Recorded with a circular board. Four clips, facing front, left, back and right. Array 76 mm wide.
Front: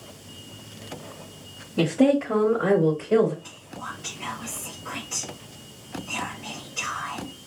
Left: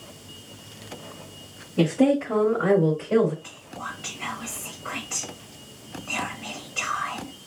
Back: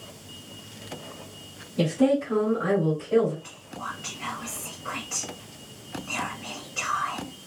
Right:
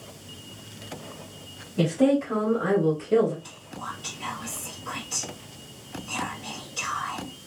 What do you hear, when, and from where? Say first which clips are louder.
1.8 s a woman speaking: left 1 dB, front 2 dB; 25° left, 2 m; by 3.3 s 60° left, 3 m
3.4 s whispering: left 1 dB, back 1 dB; 100° left, 1.3 m